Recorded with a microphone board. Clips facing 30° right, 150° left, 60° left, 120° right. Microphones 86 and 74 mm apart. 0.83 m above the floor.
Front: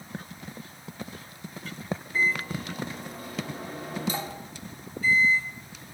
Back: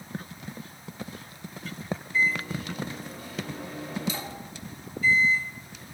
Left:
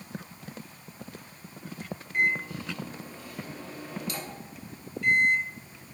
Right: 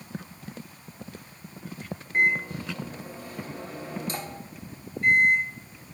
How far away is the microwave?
About 1.3 m.